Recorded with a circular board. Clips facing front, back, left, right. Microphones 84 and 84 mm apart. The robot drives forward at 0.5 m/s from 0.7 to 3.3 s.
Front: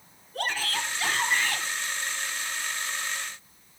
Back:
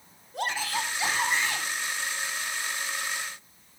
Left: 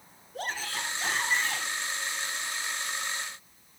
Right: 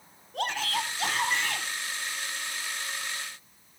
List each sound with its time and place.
0.3 s a shout: 105° right, 5 m; by 1.6 s 110° right, 5 m